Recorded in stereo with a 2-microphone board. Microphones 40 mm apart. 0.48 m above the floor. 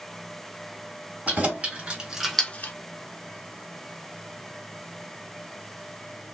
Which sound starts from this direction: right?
Keys jangling, at 1.3 s.